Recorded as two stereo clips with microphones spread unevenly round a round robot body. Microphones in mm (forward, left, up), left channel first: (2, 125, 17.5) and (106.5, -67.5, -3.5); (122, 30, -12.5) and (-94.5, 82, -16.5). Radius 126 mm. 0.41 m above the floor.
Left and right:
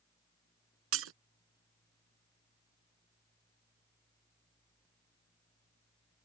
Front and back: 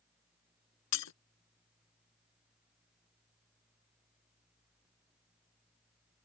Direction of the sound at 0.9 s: 40° right.